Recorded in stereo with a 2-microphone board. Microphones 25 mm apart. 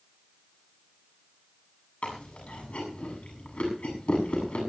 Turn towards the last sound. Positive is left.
turn(degrees=60)  # may be behind; listen again after turning